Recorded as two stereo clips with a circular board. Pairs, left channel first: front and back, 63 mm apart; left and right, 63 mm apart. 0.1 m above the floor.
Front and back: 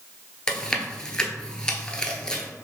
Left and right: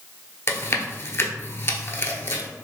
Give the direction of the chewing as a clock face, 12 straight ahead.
10 o'clock.